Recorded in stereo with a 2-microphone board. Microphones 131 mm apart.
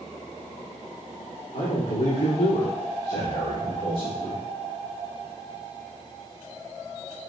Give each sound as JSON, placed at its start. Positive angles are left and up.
{"t": 1.5, "sound": "a man speaking", "side_deg": 75, "distance_m": 1.6}